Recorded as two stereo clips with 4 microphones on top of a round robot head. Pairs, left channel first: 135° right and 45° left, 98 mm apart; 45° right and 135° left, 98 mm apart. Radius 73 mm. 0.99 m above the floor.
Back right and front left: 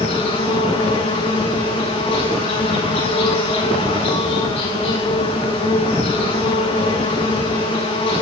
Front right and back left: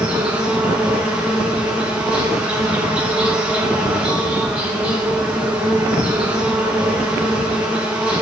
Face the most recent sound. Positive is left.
turn(degrees=-145)